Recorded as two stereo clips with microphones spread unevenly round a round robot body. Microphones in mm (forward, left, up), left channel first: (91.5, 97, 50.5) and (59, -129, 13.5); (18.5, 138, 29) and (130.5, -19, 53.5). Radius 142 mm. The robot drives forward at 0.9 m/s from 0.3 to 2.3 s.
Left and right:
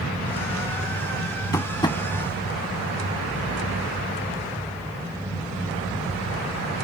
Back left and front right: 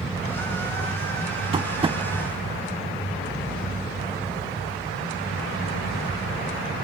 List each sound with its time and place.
1.5 s tapping: 5° left; by 2.0 s 10° left